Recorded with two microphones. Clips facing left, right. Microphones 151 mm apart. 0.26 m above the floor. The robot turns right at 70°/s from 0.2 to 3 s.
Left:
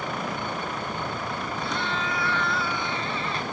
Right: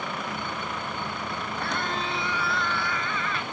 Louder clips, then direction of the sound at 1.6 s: Right 1 dB; 65° right.